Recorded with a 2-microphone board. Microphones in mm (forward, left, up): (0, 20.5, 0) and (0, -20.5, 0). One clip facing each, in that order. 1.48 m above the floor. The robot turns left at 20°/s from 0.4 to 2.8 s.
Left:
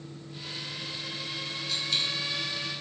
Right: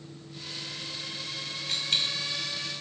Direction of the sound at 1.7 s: 50° right (ahead or behind).